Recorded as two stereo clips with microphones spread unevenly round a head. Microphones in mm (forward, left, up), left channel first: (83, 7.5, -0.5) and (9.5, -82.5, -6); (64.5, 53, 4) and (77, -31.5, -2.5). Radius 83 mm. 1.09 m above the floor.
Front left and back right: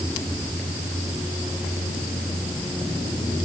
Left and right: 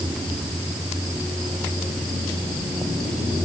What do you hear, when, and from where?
Only background noise.